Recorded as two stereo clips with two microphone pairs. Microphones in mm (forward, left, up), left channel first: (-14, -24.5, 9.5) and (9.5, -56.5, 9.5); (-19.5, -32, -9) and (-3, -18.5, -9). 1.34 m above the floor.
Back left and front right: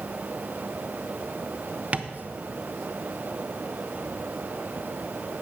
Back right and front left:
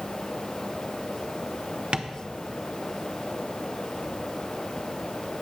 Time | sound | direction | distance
1.9 | tapping | straight ahead | 0.7 m